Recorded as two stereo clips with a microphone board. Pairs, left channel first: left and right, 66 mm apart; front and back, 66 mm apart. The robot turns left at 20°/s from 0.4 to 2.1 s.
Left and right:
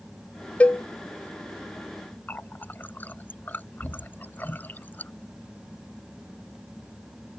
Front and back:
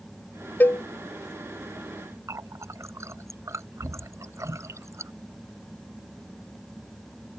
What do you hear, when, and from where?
0.6 s a cowbell: 35° left; by 0.8 s 30° left
2.3 s a running tap: 150° left